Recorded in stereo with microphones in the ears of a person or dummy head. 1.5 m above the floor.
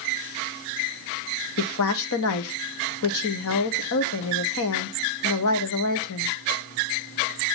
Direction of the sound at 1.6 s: 75° left (ahead or behind).